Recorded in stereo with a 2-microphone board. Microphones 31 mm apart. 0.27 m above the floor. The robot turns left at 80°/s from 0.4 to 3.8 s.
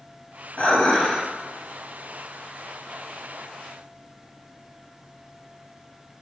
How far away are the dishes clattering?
About 1.1 m.